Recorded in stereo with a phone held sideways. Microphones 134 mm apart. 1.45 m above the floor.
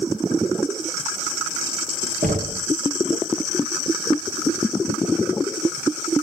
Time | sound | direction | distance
2.2 | knocking | 80° right | 1.4 m